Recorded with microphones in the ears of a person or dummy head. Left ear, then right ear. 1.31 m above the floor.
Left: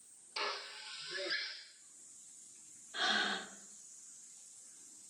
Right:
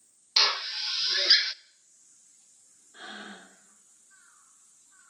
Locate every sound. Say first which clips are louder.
0.4 s a drill: right 16 dB; 60° right (ahead or behind), 0.6 m
2.9 s breathing: left 9 dB; 45° left (ahead or behind), 2.5 m